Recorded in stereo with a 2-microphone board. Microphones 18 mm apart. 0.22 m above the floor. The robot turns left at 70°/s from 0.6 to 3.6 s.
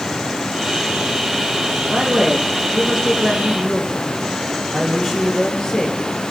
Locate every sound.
1.9 s a woman speaking: 90° right, 5 m; by 6.0 s 150° left, 5 m